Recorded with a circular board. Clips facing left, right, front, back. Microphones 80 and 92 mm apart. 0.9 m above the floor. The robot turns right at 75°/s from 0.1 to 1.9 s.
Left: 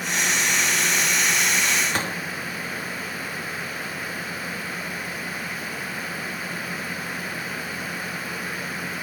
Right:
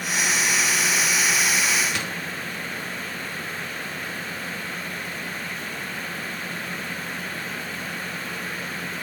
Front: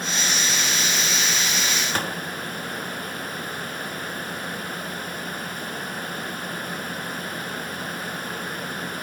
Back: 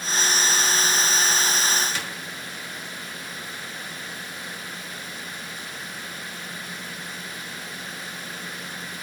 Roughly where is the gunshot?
Ahead left.